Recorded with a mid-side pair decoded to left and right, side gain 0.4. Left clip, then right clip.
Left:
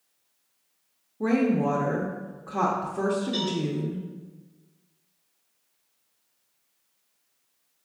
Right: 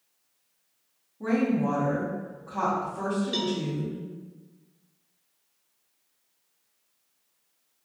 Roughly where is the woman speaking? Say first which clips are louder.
Left 2 dB; ahead left.